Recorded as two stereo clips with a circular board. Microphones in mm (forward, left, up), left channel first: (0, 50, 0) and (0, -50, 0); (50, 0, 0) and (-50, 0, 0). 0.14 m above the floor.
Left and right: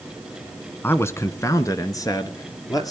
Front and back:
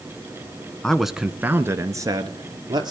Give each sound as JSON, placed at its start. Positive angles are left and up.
{"t": 0.8, "sound": "a man speaking", "azimuth_deg": 70, "distance_m": 1.0}